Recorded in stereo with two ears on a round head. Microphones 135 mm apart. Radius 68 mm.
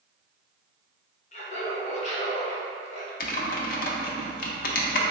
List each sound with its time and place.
1.3 s laughter: 50° left (ahead or behind), 0.9 m
3.2 s typing on a keyboard: 60° left (ahead or behind), 0.6 m